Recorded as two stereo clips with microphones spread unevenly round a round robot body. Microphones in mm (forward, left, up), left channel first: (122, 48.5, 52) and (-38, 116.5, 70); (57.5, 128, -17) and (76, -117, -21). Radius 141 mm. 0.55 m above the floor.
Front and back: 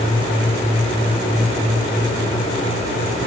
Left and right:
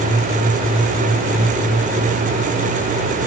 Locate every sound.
Only background noise.